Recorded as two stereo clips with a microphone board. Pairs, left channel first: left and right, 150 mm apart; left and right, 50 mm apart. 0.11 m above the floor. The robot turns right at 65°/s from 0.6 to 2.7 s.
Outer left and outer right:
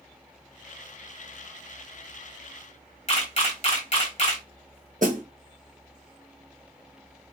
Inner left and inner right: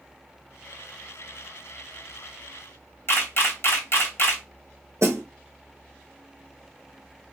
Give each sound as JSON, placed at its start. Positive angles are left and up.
{"t": 3.1, "sound": "a camera shutter", "side_deg": 45, "distance_m": 1.2}
{"t": 5.0, "sound": "a snare drum", "side_deg": -60, "distance_m": 0.9}